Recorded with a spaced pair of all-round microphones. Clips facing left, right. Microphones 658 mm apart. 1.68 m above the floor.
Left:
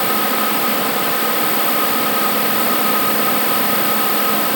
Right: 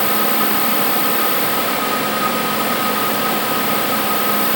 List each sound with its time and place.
Only background noise.